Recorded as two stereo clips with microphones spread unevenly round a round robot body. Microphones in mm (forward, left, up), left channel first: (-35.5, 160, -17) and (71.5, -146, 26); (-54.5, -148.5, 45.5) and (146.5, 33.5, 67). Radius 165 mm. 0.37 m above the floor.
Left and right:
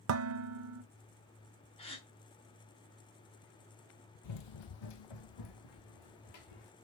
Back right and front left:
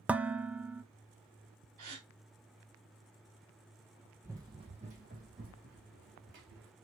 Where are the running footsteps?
125° left, 0.7 m; by 6.7 s 100° left, 2.5 m.